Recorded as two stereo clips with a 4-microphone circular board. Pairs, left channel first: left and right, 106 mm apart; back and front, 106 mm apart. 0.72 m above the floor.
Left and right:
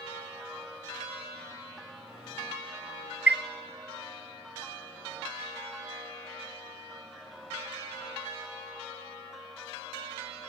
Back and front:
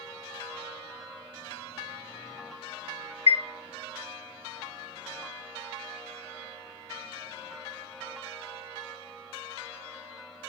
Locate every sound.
3.3 s a chime: 165° right, 0.5 m